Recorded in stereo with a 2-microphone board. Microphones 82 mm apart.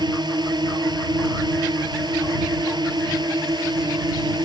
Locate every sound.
0.0 s a drone: 65° right (ahead or behind)